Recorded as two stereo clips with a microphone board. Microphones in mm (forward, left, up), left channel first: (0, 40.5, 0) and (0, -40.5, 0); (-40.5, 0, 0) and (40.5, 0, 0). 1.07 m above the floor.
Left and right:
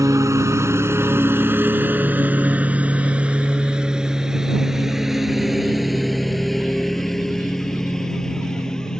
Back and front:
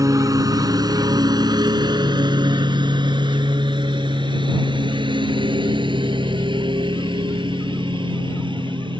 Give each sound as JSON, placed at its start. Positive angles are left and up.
{"t": 0.0, "sound": "a lawn mower", "azimuth_deg": -45}